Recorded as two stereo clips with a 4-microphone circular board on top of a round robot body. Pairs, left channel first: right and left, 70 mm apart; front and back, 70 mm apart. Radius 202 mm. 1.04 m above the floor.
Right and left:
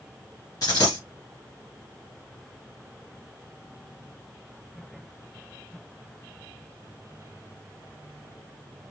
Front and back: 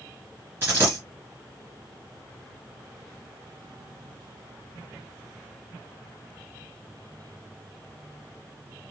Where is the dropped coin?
120° right, 1.4 m.